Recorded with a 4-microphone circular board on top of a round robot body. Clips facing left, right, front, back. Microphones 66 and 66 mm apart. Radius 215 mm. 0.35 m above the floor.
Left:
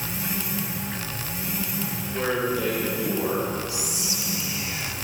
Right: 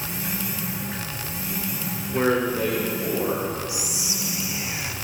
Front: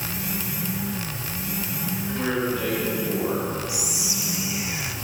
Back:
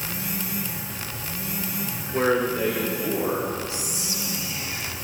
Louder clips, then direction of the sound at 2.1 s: Right 4 dB, back 5 dB; 140° right.